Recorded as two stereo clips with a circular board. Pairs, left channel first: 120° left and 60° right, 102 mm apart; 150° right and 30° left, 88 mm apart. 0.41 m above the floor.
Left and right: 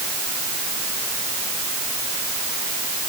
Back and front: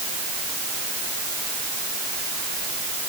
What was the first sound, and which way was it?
Only background noise.